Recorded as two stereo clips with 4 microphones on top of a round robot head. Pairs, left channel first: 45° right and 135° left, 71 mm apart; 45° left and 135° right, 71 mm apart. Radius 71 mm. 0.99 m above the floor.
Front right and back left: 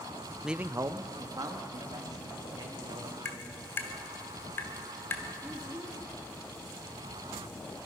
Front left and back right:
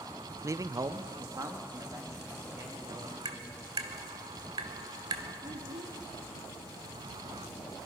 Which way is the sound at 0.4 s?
135° right.